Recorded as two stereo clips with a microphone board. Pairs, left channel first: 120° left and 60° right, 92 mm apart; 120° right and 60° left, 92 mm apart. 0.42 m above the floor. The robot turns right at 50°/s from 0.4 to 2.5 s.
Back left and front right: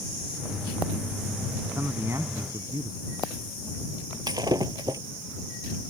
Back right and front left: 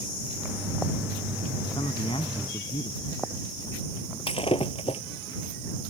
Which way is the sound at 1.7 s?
135° right.